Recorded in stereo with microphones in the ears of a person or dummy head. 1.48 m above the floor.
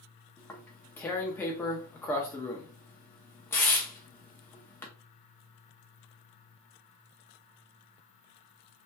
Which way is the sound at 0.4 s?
15° left (ahead or behind).